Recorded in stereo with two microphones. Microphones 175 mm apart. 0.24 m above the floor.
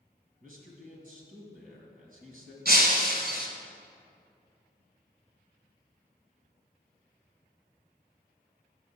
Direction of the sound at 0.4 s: 50° right (ahead or behind).